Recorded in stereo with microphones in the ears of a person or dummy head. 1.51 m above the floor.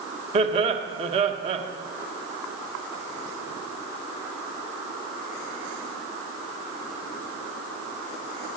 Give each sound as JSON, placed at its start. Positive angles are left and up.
{"t": 0.3, "sound": "laughter", "side_deg": -35, "distance_m": 1.6}